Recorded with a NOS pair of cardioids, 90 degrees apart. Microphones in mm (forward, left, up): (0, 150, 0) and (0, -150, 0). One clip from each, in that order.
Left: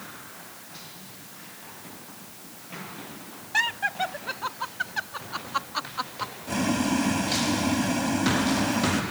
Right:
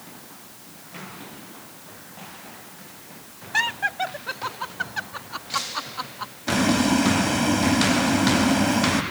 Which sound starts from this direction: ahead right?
Boiling, at 6.5 s.